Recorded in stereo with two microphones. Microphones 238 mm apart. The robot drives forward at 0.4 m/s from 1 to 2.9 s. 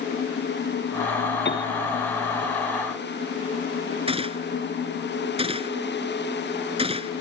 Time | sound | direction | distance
1.4 | a piano | 45° left (ahead or behind) | ?
4.1 | a gunshot | 25° right (ahead or behind) | ?